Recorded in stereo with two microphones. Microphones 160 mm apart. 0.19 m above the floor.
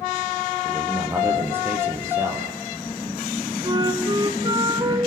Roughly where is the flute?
Right.